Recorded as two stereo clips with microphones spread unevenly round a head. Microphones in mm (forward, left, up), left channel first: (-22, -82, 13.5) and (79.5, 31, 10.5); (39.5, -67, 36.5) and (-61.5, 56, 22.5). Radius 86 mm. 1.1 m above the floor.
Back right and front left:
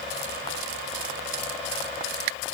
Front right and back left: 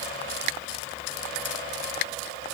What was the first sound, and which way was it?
Only background noise.